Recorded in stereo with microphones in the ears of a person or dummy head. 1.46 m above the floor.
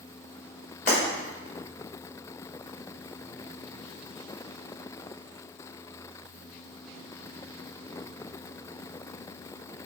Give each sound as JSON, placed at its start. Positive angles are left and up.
{"t": 0.9, "sound": "breaking glass", "side_deg": 50, "distance_m": 1.8}